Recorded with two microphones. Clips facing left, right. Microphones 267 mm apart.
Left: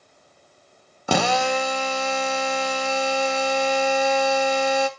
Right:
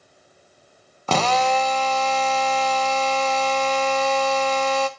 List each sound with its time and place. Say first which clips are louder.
1.1 s a drill: even; 10° left (ahead or behind), 0.9 m